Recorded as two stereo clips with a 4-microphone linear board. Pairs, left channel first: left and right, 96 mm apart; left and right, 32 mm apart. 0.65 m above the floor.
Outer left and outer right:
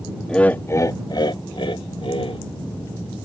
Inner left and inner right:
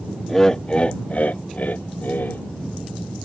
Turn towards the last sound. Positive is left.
turn(degrees=70)  # may be behind; listen again after turning